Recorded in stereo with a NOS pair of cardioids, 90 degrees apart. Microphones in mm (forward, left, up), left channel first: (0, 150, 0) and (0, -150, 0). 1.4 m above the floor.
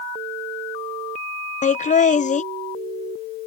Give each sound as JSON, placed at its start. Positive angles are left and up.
{"t": 1.6, "sound": "laughter", "azimuth_deg": 25}